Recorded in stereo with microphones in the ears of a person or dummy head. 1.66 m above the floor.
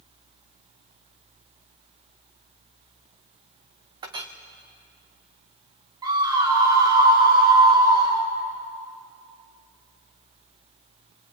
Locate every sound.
4.0 s a clink: 20° right (ahead or behind), 0.9 m
6.0 s a scream: 20° right (ahead or behind), 4.5 m